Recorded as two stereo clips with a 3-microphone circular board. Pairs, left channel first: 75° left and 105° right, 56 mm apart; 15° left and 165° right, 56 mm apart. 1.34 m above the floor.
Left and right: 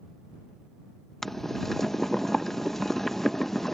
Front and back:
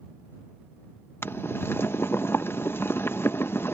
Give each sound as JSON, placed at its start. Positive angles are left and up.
{"t": 1.2, "sound": "boiling", "azimuth_deg": -5}